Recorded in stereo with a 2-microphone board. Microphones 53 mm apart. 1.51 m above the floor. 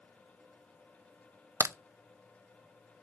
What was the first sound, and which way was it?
A crack, 60° right (ahead or behind).